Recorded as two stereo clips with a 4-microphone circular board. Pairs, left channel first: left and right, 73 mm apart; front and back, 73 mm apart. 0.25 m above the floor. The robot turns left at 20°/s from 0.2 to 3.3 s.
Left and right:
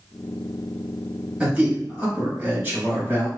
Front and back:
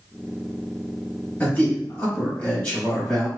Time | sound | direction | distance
1.4 | a man speaking | 40° right | 1.6 m